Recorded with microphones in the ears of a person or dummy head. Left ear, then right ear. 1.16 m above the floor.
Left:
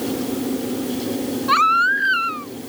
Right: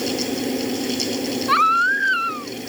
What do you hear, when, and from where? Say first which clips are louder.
0.0 s a fan: right 1 dB; 65° right (ahead or behind)
1.5 s a baby crying: left 1 dB; 5° left (ahead or behind)